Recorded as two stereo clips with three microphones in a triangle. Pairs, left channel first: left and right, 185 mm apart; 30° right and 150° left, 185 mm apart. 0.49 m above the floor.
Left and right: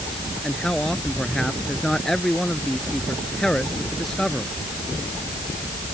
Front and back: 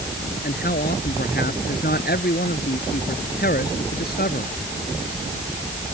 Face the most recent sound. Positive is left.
turn(degrees=5)